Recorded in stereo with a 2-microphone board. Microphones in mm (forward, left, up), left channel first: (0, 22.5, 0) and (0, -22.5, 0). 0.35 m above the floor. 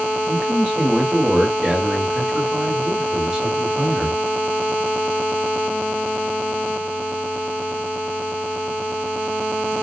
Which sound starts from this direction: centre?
A man speaking, at 0.3 s.